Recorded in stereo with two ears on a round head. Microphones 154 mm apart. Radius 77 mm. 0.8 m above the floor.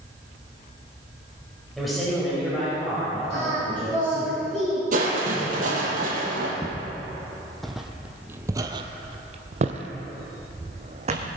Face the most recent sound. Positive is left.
turn(degrees=-40)  # may be behind; listen again after turning